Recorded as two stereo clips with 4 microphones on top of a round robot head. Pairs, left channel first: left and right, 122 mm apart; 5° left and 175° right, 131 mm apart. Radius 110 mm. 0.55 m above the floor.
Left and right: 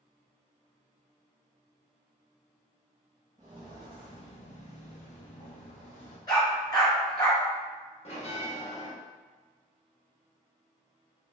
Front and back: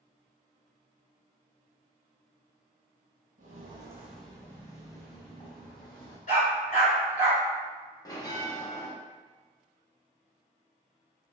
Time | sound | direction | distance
3.4 | footsteps | 160° right | 0.8 m
6.3 | a dog barking | 35° left | 1.9 m
8.1 | a bell | 65° left | 1.3 m